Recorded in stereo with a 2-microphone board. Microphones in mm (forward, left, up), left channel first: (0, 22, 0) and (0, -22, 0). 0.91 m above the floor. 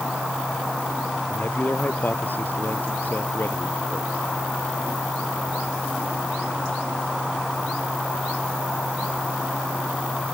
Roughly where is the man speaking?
Left.